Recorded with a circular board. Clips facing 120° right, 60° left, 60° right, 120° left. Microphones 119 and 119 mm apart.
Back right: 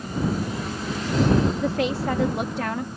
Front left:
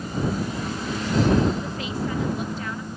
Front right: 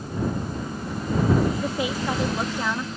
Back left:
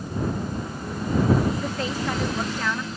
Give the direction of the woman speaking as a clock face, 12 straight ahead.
5 o'clock.